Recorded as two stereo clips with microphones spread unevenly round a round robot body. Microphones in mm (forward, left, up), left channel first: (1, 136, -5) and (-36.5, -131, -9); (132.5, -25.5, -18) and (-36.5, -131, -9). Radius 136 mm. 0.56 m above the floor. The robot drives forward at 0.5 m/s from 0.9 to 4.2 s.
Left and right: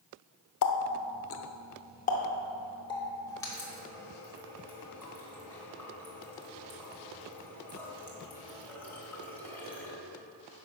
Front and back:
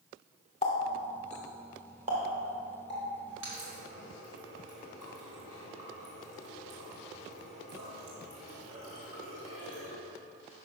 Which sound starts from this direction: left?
A running tap, at 0.6 s.